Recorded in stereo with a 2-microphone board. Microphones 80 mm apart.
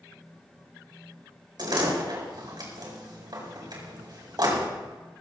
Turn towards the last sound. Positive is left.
turn(degrees=-60)  # may be behind; listen again after turning